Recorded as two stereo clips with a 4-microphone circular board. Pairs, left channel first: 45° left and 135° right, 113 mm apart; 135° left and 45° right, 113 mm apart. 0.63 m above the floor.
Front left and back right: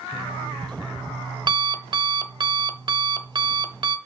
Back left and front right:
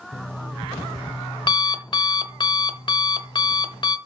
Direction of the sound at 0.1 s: Straight behind.